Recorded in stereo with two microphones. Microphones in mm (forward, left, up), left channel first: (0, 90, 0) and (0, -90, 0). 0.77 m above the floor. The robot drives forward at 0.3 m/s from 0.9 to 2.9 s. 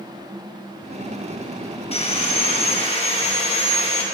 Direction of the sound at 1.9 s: 35° left (ahead or behind).